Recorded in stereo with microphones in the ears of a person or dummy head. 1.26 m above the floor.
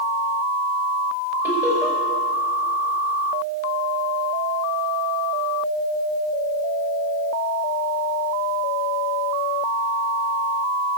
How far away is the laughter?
About 4.5 m.